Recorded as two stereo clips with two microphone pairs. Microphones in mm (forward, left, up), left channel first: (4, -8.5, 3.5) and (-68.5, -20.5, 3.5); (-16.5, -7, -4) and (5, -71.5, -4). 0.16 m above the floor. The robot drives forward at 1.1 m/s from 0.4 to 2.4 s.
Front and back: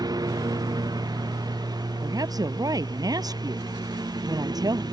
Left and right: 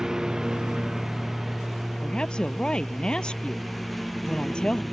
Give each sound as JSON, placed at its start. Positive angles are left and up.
{"t": 0.0, "sound": "a lawn mower", "azimuth_deg": -155}
{"t": 2.0, "sound": "a woman speaking", "azimuth_deg": -175}